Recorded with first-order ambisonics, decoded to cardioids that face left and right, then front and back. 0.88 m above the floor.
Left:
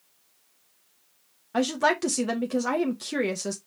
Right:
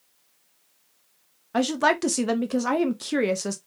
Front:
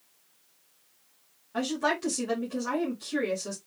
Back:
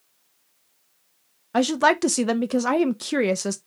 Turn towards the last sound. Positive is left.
turn(degrees=-165)